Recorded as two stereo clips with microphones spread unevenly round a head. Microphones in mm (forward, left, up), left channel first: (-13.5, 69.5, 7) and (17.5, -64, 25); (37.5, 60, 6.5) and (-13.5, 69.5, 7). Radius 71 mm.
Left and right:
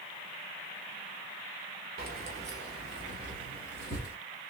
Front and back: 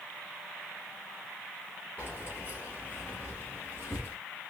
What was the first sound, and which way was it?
Keys jangling, 80° right.